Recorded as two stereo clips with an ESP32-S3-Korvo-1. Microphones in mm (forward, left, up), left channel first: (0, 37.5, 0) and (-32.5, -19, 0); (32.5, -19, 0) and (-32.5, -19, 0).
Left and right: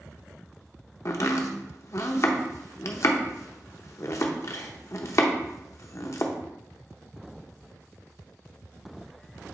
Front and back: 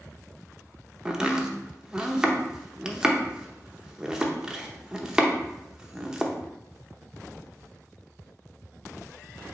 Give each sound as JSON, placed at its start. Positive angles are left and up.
{"t": 1.1, "sound": "chopping", "azimuth_deg": 100, "distance_m": 0.8}